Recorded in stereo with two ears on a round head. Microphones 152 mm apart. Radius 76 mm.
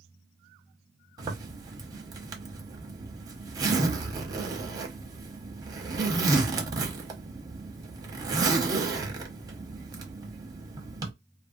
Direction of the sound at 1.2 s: 25° right (ahead or behind).